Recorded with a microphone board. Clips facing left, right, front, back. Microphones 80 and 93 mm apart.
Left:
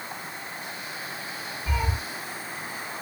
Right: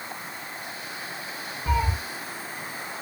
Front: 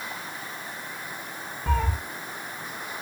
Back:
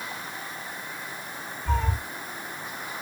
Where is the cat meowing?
30° right, 7.5 m.